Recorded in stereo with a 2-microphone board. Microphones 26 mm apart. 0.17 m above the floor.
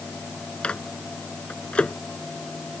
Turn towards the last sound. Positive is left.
turn(degrees=50)  # may be behind; listen again after turning